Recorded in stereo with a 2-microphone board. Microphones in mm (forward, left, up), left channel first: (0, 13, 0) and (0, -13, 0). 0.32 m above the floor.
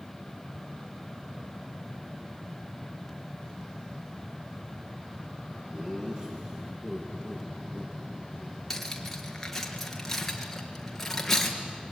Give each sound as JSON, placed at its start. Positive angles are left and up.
{"t": 5.7, "sound": "laughter", "side_deg": -35, "distance_m": 5.5}
{"t": 8.7, "sound": "cutlery clinking", "side_deg": 10, "distance_m": 3.0}